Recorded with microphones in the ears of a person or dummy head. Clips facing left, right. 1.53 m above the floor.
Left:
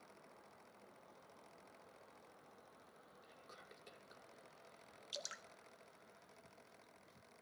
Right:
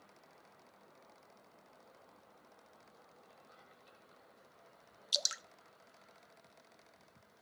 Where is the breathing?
I don't hear breathing.